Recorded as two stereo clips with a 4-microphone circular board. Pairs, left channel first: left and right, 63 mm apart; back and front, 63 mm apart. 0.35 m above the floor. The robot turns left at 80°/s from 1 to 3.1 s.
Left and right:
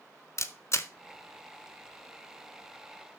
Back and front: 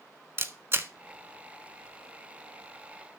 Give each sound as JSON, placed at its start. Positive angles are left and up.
{"t": 0.4, "sound": "a camera shutter", "azimuth_deg": 50, "distance_m": 0.7}